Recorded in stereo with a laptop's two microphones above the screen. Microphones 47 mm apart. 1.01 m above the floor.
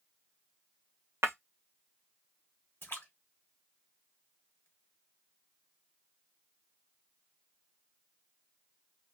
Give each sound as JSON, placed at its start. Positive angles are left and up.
{"t": 1.2, "sound": "breaking glass", "side_deg": -60, "distance_m": 0.6}
{"t": 2.8, "sound": "a splash", "side_deg": 50, "distance_m": 1.0}